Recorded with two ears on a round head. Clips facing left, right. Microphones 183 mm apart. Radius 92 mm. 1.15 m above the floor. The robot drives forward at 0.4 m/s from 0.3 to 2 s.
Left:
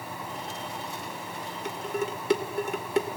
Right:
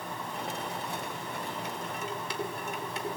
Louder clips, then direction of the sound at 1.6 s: Left 6 dB; 45° left (ahead or behind).